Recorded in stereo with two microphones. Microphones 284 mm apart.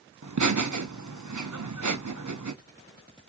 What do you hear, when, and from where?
0.2 s laughter: 85° right, 0.8 m